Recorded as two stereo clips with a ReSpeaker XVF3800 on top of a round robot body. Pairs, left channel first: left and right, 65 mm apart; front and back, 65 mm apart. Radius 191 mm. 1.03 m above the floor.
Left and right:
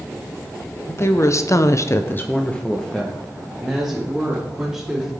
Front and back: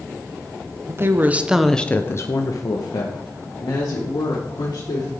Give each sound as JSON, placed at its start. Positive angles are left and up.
{"t": 0.9, "sound": "a woman speaking", "azimuth_deg": 135, "distance_m": 1.6}